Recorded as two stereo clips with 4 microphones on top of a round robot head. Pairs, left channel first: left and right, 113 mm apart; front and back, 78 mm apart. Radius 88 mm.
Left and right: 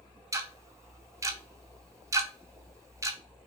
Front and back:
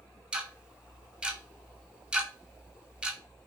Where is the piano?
No piano in this recording.